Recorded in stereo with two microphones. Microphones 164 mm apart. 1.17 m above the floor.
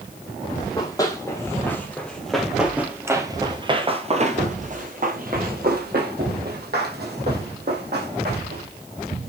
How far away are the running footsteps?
About 2.5 m.